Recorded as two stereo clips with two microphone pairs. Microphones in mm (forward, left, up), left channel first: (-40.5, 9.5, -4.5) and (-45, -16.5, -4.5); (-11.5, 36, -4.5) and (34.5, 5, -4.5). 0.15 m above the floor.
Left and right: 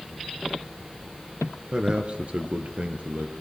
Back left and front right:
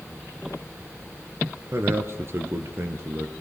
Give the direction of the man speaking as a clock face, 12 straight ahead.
2 o'clock.